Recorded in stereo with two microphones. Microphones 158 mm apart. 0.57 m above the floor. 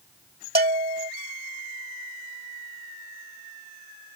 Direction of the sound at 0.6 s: 75° right (ahead or behind).